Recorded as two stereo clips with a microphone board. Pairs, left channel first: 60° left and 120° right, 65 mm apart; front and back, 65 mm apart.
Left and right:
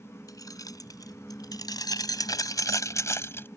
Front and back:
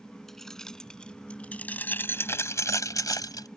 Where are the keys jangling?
85° left; by 3.5 s 10° left.